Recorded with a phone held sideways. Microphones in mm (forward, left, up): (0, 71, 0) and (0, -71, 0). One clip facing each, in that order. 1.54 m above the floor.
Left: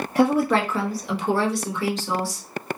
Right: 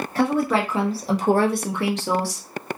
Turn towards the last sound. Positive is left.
turn(degrees=-75)  # may be behind; listen again after turning